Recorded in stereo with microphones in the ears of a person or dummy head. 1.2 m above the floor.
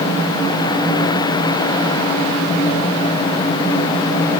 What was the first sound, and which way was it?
Only background noise.